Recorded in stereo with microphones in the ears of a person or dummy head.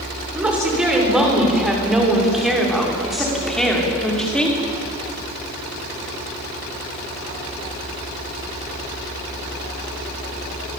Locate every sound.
0.3 s a woman speaking: 5° right (ahead or behind), 7 m; by 4.6 s 5° left (ahead or behind), 5 m